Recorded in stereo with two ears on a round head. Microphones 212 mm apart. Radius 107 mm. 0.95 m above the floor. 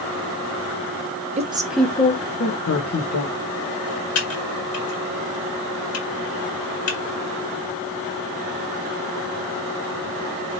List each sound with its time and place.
1.4 s a woman speaking: 30° right (ahead or behind), 0.5 m; by 3.3 s 65° left (ahead or behind), 1.1 m
4.2 s typing on a keyboard: 70° left (ahead or behind), 1.5 m